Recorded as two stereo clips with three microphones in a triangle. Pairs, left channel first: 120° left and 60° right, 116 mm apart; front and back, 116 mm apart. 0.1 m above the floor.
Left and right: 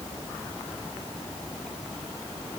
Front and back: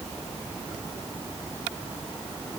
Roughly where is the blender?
I don't hear a blender.